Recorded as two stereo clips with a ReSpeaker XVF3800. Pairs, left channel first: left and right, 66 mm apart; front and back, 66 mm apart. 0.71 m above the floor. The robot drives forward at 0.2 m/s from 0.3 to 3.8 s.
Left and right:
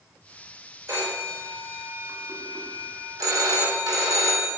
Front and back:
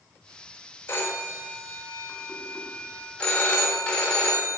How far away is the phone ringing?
About 1.4 m.